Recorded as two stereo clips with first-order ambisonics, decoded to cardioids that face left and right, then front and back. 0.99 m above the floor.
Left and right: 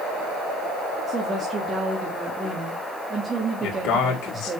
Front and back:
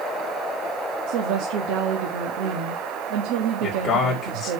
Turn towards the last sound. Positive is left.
turn(degrees=75)